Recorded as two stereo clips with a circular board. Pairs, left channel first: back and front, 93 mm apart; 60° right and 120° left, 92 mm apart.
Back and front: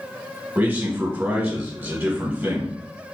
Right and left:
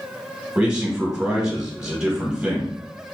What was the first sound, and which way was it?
A man speaking, 45° left.